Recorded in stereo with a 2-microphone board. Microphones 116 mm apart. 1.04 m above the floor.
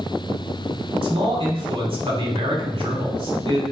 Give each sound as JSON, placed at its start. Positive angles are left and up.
{"t": 1.0, "sound": "a man speaking", "side_deg": -55, "distance_m": 3.0}